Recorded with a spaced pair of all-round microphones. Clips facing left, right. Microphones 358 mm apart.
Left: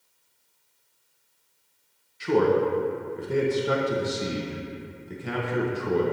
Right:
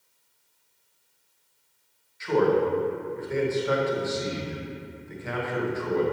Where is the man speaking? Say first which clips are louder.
Left 1 dB; 45° left (ahead or behind), 1.1 m.